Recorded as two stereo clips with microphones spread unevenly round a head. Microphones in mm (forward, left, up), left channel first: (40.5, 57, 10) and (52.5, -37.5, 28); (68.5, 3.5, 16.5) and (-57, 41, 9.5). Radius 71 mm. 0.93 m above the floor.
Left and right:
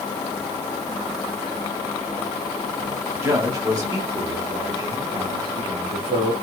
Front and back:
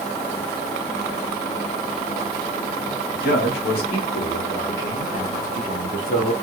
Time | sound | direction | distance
3.1 | a man speaking | 15° right | 2.0 m